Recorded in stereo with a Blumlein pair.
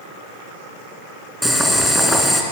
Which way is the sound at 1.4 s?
Straight ahead.